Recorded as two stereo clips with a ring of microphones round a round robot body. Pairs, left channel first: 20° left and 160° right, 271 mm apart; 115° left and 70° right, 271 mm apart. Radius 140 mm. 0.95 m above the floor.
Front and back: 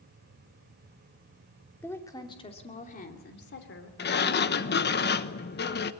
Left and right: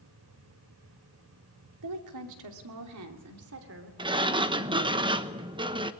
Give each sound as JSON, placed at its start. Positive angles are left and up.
{"t": 1.8, "sound": "a woman speaking", "azimuth_deg": -60, "distance_m": 2.5}
{"t": 4.0, "sound": "a sliding door", "azimuth_deg": -5, "distance_m": 1.1}